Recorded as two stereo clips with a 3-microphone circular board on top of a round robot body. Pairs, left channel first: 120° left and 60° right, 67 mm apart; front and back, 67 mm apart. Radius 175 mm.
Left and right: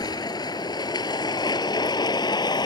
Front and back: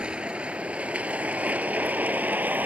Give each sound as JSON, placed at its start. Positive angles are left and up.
{"t": 0.0, "sound": "a vehicle", "azimuth_deg": 105}